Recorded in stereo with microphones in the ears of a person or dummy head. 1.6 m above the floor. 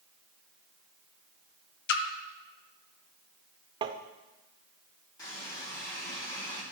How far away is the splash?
About 0.9 m.